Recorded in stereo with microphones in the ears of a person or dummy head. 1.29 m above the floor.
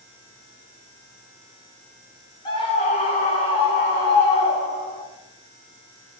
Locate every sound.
2.5 s a scream: 20° left (ahead or behind), 0.6 m; by 5.0 s 15° left (ahead or behind), 1.2 m